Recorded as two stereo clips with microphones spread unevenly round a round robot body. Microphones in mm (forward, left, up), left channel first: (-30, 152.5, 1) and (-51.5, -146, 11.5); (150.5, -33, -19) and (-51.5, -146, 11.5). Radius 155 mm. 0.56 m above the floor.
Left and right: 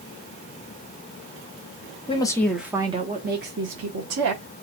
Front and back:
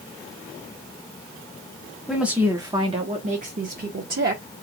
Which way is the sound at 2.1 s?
100° left.